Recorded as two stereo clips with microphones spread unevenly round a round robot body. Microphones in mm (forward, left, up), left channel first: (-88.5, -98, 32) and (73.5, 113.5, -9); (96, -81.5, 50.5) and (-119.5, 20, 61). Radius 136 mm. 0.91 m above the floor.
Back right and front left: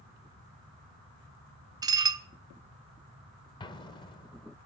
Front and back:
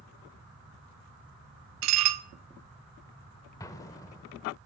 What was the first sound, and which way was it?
Dishes clattering, 130° left.